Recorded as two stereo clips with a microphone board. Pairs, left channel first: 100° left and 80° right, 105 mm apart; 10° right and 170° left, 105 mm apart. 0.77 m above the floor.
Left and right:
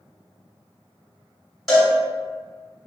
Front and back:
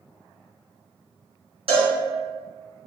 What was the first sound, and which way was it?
A cowbell, 170° right.